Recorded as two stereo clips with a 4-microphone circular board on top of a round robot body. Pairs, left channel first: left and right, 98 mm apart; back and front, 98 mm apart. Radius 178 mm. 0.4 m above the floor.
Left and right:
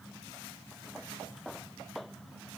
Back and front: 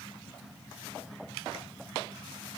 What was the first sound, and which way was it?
Only background noise.